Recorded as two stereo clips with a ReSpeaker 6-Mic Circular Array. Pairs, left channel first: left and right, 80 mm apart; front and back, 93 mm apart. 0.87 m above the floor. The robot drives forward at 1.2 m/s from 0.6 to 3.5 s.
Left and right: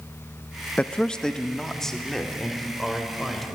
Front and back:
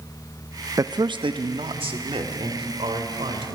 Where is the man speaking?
155° left, 0.6 m; by 3.6 s 175° left, 3.5 m.